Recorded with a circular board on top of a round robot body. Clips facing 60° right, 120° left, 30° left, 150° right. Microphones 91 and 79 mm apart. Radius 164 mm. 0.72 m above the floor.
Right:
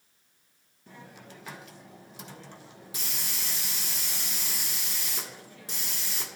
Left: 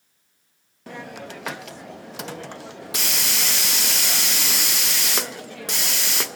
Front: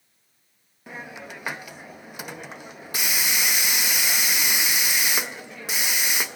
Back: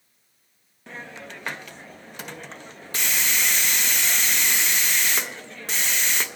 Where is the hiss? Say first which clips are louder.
Left 13 dB, front 1 dB; 110° left, 0.6 m.